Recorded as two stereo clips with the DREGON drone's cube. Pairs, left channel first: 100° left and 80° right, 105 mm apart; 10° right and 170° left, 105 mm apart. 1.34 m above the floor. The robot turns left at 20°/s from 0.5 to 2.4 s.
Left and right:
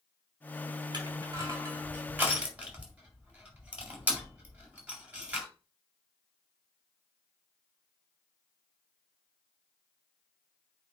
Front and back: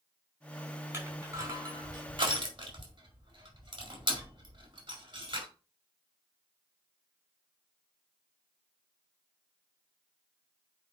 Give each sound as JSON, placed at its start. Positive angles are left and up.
{"t": 0.9, "sound": "crushing", "azimuth_deg": -125, "distance_m": 4.5}